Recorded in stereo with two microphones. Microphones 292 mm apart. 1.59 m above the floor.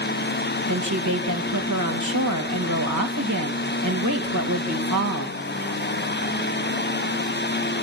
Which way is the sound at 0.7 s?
80° right.